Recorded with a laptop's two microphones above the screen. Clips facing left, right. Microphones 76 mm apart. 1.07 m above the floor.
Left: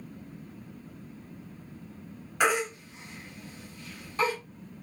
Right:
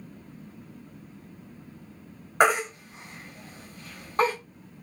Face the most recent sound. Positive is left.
turn(degrees=-45)  # may be behind; listen again after turning